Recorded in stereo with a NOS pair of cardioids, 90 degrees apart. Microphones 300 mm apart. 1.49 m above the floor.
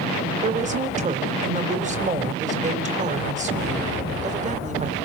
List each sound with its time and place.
0.4 s a woman speaking: 25° right, 4.5 m